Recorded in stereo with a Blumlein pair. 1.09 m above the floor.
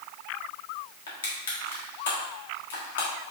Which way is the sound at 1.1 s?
65° left.